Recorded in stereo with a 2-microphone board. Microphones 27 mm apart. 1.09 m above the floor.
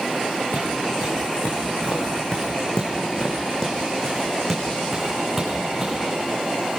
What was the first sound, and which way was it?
Footsteps, 65° left (ahead or behind).